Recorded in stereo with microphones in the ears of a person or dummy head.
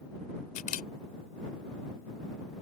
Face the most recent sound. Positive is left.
turn(degrees=40)  # may be behind; listen again after turning